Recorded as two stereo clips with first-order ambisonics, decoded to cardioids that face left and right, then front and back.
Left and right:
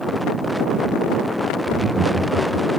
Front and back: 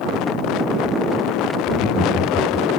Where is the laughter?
45° right, 1.2 m; by 2.7 s 85° right, 1.1 m.